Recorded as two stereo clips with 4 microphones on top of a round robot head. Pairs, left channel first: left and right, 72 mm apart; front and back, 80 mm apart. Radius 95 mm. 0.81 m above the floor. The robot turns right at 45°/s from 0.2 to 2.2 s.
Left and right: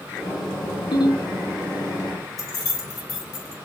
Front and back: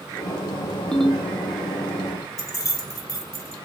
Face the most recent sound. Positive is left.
turn(degrees=45)